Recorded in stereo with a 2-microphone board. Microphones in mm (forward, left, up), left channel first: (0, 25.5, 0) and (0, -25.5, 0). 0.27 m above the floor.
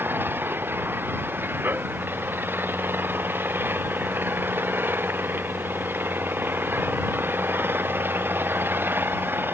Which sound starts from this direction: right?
An engine running, at 0.0 s.